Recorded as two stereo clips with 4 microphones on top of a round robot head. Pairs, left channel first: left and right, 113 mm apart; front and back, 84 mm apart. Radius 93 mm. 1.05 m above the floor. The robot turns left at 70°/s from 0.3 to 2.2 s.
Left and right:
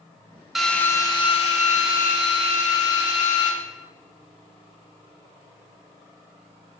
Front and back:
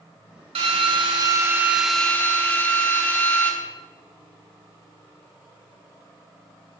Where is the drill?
175° right, 1.1 m; by 3.5 s 70° left, 1.1 m.